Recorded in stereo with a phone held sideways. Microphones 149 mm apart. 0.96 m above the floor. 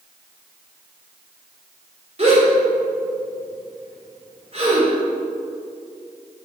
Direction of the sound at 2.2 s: 45° right (ahead or behind).